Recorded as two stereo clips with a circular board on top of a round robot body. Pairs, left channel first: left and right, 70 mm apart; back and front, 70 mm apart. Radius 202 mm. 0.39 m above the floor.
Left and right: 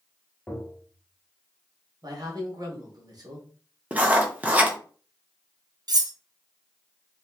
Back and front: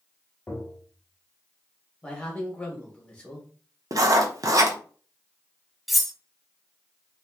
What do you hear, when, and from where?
0.5 s tapping: 155° left, 1.5 m
2.0 s a man speaking: 105° right, 1.6 m
3.9 s writing: 25° right, 1.1 m
5.9 s cutlery clinking: 90° right, 0.8 m